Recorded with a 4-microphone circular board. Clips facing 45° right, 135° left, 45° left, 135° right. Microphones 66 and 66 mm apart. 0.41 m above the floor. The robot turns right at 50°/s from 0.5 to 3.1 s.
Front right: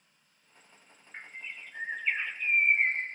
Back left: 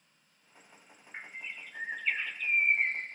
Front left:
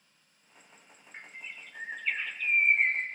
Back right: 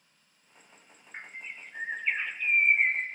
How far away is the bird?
About 0.5 m.